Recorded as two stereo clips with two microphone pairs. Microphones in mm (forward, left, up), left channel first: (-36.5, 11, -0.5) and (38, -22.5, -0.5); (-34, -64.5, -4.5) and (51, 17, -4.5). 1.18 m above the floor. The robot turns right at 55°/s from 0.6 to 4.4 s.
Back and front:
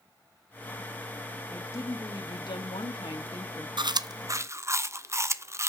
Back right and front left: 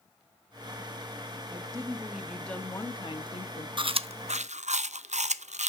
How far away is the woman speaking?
About 1.3 m.